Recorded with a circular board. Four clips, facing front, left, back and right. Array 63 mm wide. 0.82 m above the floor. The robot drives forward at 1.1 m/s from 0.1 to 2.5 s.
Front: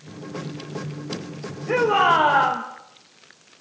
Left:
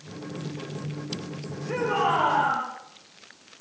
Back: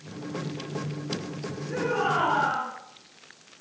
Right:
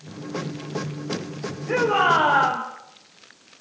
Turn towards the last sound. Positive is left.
turn(degrees=-30)